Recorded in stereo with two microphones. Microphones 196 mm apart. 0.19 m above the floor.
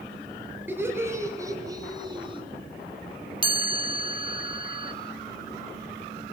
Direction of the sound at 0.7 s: 10° right (ahead or behind).